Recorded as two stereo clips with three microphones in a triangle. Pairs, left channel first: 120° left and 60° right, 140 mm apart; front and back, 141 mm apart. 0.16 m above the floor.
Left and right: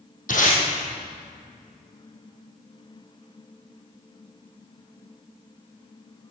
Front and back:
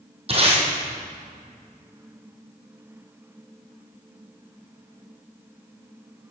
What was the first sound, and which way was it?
Tape being pulled, 135° left.